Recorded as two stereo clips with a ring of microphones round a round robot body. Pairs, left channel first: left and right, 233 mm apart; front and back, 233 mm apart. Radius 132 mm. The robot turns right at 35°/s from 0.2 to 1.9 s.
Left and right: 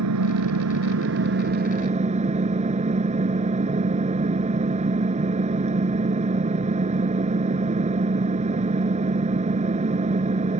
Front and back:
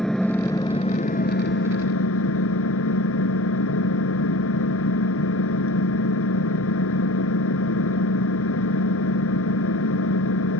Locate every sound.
0.0 s an engine running: 90° right; by 10.6 s 30° right